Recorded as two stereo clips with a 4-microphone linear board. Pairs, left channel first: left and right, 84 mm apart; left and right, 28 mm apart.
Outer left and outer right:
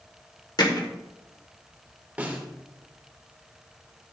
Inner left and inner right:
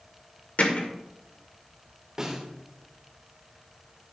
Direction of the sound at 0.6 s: 60° left (ahead or behind).